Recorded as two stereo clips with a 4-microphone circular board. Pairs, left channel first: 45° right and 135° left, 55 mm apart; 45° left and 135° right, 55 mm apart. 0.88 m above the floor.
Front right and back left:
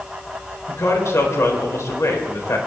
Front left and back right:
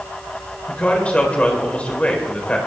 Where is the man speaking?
20° right, 4 m.